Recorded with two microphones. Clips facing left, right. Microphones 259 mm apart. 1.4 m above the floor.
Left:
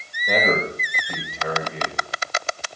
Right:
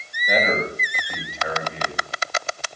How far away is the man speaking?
About 6 m.